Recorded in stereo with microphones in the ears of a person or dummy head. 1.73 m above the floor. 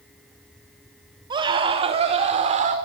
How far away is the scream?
About 3.5 m.